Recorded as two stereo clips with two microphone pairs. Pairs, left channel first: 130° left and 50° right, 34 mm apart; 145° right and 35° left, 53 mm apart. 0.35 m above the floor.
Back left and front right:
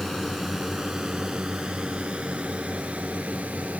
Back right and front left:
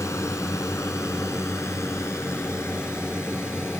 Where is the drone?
150° right; by 3.8 s 105° right.